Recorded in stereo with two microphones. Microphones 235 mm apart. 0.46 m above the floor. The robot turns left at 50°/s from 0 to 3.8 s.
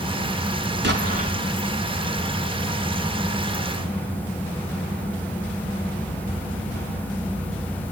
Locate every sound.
0.8 s an explosion: 50° right (ahead or behind), 3 m; by 1.4 s 25° right (ahead or behind), 3 m